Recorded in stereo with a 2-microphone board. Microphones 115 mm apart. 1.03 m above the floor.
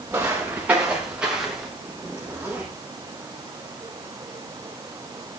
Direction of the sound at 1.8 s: 10° right (ahead or behind).